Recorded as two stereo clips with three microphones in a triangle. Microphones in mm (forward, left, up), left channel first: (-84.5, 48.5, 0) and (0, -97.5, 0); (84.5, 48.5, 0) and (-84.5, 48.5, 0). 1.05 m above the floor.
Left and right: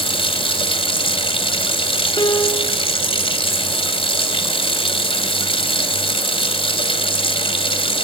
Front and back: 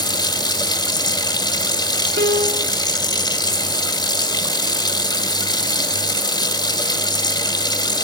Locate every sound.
0.0 s running water: 65° left, 1.8 m
2.2 s a piano: 175° right, 2.5 m